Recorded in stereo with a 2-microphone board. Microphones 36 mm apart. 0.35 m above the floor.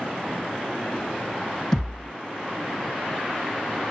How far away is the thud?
About 4.5 m.